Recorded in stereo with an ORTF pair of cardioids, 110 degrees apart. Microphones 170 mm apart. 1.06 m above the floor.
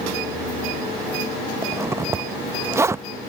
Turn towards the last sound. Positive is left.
turn(degrees=-15)